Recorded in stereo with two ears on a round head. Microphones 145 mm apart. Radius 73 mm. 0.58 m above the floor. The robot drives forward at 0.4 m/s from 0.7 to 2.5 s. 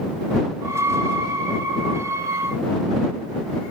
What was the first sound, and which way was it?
Only background noise.